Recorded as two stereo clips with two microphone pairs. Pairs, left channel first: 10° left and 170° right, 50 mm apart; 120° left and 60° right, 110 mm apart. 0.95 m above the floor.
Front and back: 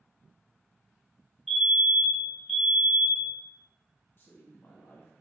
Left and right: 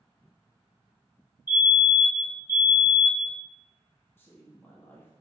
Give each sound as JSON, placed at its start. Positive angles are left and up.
{"t": 1.5, "sound": "a fire alarm", "azimuth_deg": 105, "distance_m": 1.4}
{"t": 4.2, "sound": "a woman speaking", "azimuth_deg": 50, "distance_m": 1.0}